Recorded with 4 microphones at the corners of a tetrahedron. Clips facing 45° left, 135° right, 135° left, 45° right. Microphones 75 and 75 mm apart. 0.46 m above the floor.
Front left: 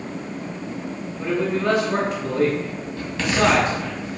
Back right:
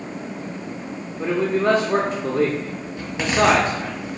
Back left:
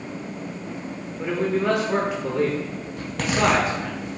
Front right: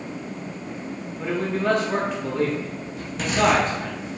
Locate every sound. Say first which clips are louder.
1.2 s a man speaking: back right 2 dB, back left 2 dB; 150° right, 1.1 m
3.0 s a zipper: back right 1 dB, even; 155° left, 2.0 m